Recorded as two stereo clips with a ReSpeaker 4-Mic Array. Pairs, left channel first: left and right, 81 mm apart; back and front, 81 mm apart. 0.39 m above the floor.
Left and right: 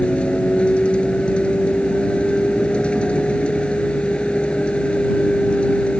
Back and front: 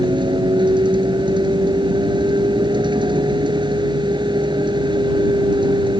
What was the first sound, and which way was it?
A vehicle, 15° left.